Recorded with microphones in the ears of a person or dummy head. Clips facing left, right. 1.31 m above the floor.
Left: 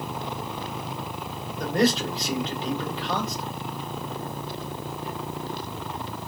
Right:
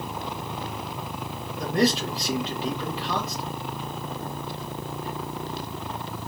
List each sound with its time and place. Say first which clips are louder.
1.6 s a man speaking: even; centre (ahead or behind), 2 m